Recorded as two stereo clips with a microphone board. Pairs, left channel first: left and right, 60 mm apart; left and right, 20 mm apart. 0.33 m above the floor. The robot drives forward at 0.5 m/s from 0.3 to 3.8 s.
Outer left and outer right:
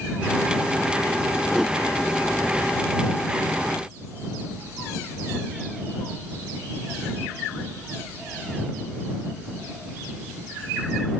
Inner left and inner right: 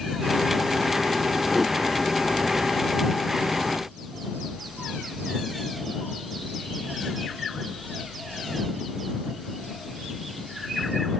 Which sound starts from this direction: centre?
A whoosh, at 1.5 s.